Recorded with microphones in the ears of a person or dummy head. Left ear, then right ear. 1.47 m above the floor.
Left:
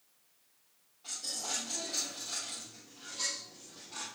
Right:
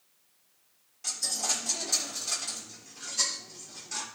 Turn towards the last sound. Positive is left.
turn(degrees=-65)  # may be behind; listen again after turning